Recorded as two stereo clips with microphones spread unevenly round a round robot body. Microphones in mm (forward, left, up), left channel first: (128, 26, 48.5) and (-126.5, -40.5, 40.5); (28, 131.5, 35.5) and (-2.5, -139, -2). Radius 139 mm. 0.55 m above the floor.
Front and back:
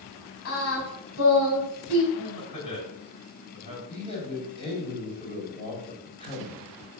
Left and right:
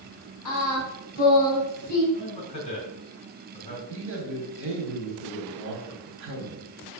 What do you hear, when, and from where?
0.5 s singing: 40° left, 3 m
2.1 s a man speaking: 10° left, 4 m
3.9 s a man speaking: 55° right, 2.5 m